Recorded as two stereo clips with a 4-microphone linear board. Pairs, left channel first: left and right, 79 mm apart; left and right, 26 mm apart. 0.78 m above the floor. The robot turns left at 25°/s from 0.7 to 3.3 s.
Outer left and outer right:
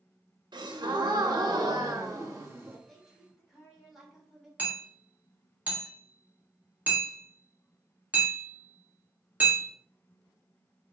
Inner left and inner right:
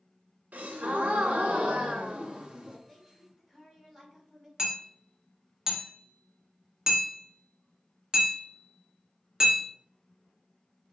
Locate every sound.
0.5 s a gasp: 95° right, 0.7 m; by 2.8 s 150° right, 0.7 m
2.9 s a woman speaking: 5° left (ahead or behind), 1.4 m; by 4.5 s 5° right (ahead or behind), 1.4 m
4.6 s hammering: 20° right (ahead or behind), 1.1 m